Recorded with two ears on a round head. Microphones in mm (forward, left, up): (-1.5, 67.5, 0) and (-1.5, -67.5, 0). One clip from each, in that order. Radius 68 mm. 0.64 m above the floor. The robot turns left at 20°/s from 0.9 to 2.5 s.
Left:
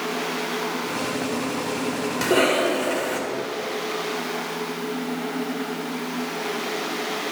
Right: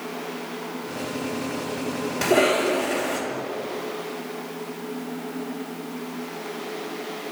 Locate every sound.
2.2 s a cough: 20° left (ahead or behind), 2.5 m; by 3.2 s 15° left (ahead or behind), 2.5 m